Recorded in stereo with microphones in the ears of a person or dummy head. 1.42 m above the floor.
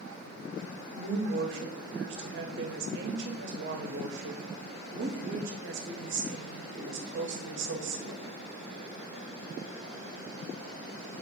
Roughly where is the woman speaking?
Right.